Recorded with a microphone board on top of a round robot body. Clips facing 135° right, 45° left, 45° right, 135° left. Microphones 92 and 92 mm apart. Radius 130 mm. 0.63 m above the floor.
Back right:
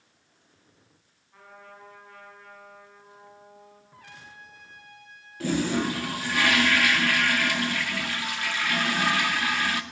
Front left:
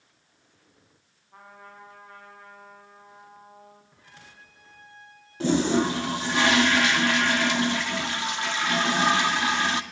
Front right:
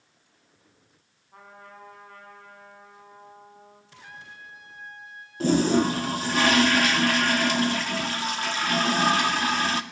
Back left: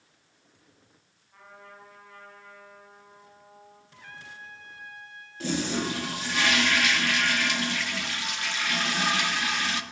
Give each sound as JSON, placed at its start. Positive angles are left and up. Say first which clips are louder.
{"t": 1.3, "sound": "a trumpet", "louder": "front left 1 dB, front right 2 dB", "azimuth_deg": -5, "distance_m": 8.0}
{"t": 3.9, "sound": "a trumpet", "louder": "back right 4 dB, even", "azimuth_deg": -120, "distance_m": 4.0}
{"t": 5.4, "sound": "a toilet flushing", "louder": "front left 4 dB, front right 8 dB", "azimuth_deg": -15, "distance_m": 2.0}